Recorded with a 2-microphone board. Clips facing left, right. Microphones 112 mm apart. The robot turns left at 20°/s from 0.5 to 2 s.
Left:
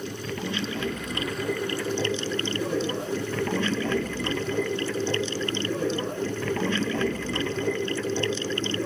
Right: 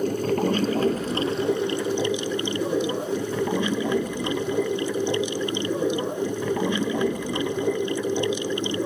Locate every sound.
0.0 s running water: 135° right; by 8.8 s 165° right